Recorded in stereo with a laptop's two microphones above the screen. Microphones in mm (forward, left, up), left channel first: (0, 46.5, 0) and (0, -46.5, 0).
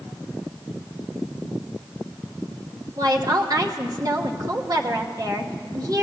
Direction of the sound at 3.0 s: 40° right (ahead or behind).